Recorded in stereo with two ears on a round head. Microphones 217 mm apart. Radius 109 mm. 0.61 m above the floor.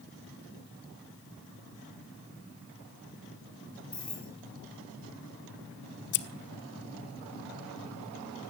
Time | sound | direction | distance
3.9 | keys jangling | 5° left (ahead or behind) | 9.5 m
6.1 | scissors | 45° left (ahead or behind) | 1.2 m